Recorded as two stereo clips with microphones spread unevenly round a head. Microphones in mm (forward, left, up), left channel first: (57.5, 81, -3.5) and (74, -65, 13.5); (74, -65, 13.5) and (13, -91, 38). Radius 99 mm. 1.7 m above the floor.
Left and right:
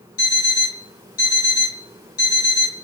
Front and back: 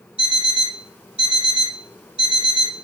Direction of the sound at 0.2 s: 130° left.